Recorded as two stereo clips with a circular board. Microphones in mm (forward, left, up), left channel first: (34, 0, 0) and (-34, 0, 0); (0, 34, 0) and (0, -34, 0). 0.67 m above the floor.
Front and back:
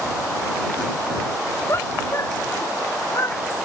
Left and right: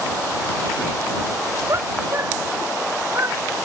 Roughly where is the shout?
Ahead right.